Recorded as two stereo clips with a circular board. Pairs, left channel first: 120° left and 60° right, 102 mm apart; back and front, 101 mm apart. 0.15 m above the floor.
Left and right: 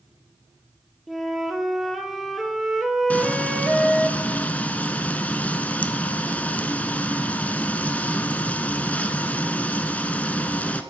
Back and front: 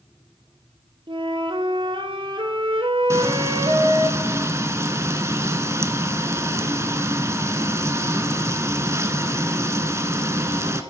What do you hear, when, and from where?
1.1 s a flute: 30° left, 1.1 m
3.1 s frying: 50° left, 0.8 m